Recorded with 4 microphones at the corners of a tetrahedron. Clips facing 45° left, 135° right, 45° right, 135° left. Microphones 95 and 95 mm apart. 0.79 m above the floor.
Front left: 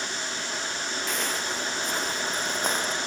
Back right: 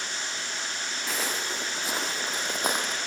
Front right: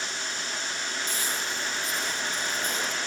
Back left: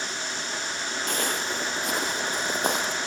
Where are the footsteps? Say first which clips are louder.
Even, back left 4 dB; 140° left, 1.3 m; by 3.0 s 145° left, 2.5 m.